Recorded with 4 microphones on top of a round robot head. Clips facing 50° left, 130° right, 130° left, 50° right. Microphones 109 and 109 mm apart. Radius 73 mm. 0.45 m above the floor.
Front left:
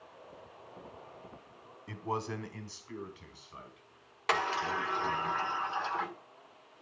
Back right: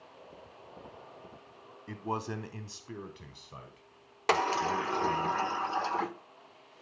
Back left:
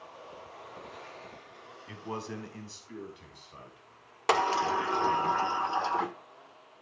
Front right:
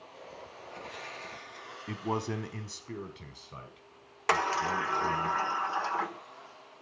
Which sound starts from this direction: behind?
A sliding door, at 4.3 s.